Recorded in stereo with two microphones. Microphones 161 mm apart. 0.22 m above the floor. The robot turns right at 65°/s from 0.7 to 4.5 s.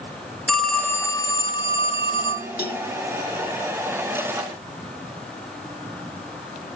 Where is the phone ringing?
10° left, 1.0 m; by 2.5 s 125° left, 1.0 m.